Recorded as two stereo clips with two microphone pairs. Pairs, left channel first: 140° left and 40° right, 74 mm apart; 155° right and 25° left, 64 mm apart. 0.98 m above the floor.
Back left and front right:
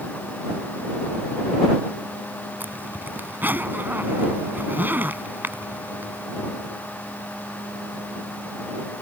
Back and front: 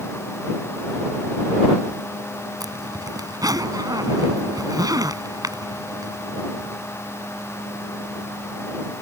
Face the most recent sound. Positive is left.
turn(degrees=20)